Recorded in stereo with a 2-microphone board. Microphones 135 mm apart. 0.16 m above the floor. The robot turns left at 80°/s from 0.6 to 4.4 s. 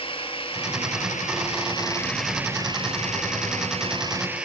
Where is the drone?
130° left; by 4.5 s 170° right.